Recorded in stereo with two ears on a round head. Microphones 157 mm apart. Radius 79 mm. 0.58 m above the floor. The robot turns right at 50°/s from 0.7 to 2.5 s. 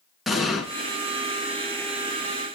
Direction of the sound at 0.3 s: Centre (ahead or behind).